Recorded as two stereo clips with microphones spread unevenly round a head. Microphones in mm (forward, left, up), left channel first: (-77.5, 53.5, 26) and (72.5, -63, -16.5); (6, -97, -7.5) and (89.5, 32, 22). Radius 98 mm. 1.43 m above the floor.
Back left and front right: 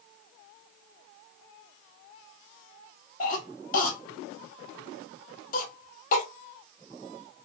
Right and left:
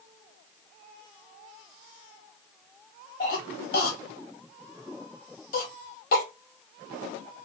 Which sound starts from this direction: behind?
A cough, at 3.2 s.